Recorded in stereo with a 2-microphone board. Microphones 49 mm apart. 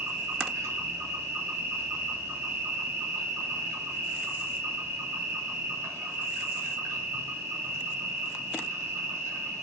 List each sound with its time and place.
0.0 s an insect: 65° right (ahead or behind), 2.5 m